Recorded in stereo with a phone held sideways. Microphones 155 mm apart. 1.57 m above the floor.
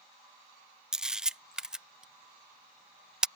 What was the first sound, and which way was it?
A camera shutter, 5° right (ahead or behind).